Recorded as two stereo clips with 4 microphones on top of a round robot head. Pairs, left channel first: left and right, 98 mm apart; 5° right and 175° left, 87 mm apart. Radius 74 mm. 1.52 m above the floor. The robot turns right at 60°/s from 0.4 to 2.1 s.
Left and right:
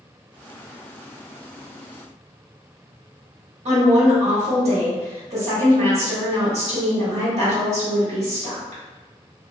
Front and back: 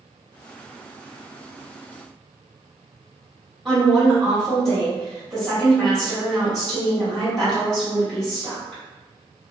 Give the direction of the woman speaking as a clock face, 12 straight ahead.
3 o'clock.